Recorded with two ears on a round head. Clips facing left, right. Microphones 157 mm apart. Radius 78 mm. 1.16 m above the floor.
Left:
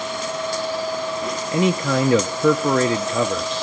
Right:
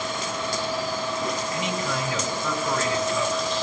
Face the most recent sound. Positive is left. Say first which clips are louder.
# left 8 dB
turn(degrees=45)  # may be behind; listen again after turning